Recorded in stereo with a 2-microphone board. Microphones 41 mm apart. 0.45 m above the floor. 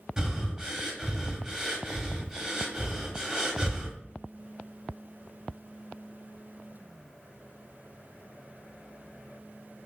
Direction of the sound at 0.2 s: 20° right (ahead or behind).